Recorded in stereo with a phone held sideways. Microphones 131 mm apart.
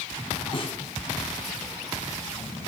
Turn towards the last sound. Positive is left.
turn(degrees=40)  # may be behind; listen again after turning